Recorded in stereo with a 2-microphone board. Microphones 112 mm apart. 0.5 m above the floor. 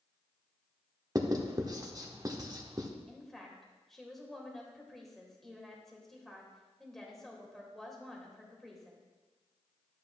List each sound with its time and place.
1.1 s writing: 30° right (ahead or behind), 0.9 m
3.1 s a woman speaking: centre (ahead or behind), 1.8 m